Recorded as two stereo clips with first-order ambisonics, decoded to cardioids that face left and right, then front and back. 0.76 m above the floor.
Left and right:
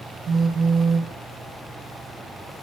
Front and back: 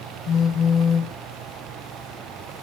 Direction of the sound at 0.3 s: 30° right.